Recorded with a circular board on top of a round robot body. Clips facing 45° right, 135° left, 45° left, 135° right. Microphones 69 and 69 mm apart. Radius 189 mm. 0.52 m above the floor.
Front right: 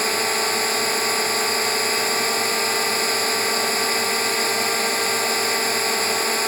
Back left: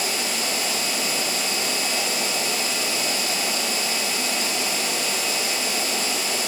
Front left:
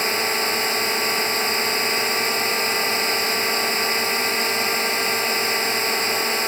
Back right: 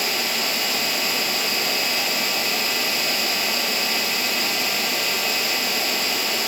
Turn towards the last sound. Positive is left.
turn(degrees=-10)